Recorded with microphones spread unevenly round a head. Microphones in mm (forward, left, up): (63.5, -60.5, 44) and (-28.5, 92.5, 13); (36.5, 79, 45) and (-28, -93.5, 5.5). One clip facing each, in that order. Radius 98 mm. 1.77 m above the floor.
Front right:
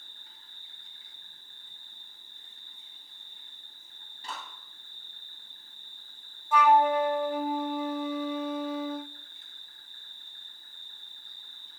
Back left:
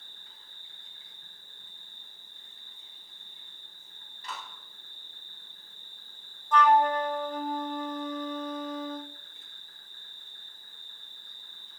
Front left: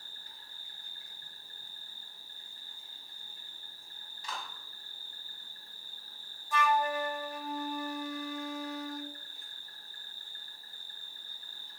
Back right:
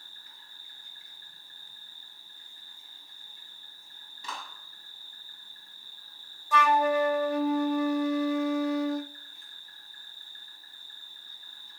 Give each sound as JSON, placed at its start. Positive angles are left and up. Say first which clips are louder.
{"t": 0.0, "sound": "an insect", "louder": "back left 1 dB, front left 2 dB", "azimuth_deg": 130, "distance_m": 7.0}
{"t": 4.2, "sound": "a clap", "louder": "even, back right 1 dB", "azimuth_deg": -125, "distance_m": 10.0}
{"t": 6.5, "sound": "a flute", "louder": "front right 1 dB, back right 6 dB", "azimuth_deg": -125, "distance_m": 0.6}